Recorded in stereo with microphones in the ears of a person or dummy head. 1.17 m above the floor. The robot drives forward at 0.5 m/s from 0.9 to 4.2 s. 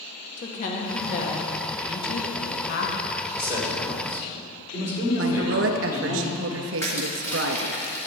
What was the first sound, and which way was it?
A woman speaking, 45° left (ahead or behind).